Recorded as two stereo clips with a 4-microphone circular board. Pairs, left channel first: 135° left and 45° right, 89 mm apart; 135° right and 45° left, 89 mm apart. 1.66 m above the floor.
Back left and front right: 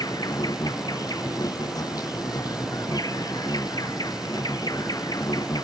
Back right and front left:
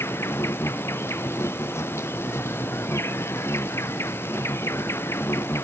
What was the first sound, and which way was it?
An insect, 170° left.